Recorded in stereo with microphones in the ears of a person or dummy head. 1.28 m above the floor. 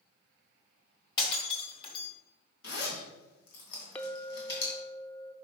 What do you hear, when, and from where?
1.2 s breaking glass: 35° left (ahead or behind), 1.5 m
2.6 s a zipper: 65° left (ahead or behind), 2.5 m
4.0 s a clink: 10° left (ahead or behind), 0.5 m